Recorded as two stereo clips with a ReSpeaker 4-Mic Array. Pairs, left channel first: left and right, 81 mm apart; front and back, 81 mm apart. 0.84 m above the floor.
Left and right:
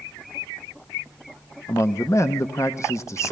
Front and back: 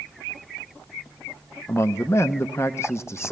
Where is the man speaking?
45° left, 0.7 m.